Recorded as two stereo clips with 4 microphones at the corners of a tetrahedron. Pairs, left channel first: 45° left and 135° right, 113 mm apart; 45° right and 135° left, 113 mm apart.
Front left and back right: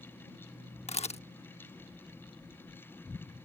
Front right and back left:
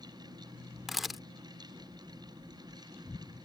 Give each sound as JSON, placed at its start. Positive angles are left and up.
{"t": 0.9, "sound": "a camera shutter", "azimuth_deg": 45}